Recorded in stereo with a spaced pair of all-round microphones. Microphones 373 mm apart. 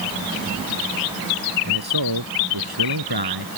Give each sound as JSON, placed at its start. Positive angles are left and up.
{"t": 1.6, "sound": "a man speaking", "side_deg": -80}